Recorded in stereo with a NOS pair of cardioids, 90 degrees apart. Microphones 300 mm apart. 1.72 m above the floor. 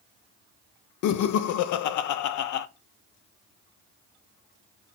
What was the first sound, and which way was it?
Laughter, 65° left.